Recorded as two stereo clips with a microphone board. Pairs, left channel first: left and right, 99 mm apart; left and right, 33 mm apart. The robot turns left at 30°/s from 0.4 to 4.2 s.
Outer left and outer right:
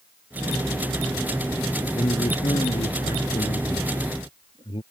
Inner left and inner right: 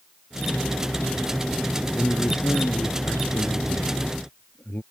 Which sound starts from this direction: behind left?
A man speaking, at 1.9 s.